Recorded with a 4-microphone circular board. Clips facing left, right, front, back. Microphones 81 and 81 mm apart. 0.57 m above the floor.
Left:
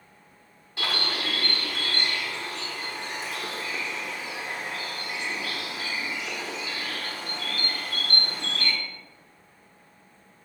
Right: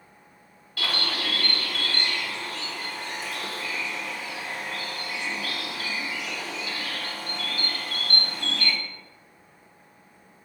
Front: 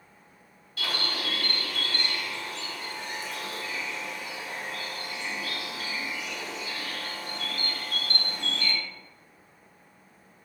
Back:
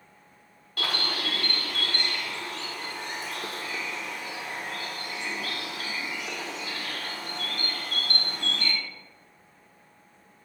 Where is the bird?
155° left, 1.2 m.